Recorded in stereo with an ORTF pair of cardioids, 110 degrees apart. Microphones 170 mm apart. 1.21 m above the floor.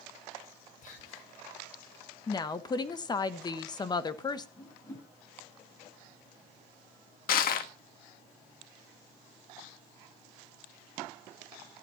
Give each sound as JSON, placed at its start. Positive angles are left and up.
{"t": 0.8, "sound": "whispering", "azimuth_deg": 55, "distance_m": 5.0}
{"t": 2.3, "sound": "a woman speaking", "azimuth_deg": 25, "distance_m": 1.3}
{"t": 4.6, "sound": "a whoosh", "azimuth_deg": 20, "distance_m": 5.5}
{"t": 7.3, "sound": "crushing", "azimuth_deg": 60, "distance_m": 1.4}